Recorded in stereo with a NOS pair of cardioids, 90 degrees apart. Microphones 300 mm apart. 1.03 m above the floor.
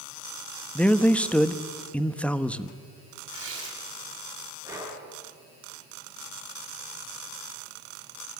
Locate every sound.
0.8 s a man speaking: 5° left, 1.1 m
3.3 s tearing paper: 45° right, 7 m
4.6 s breathing: 10° right, 9 m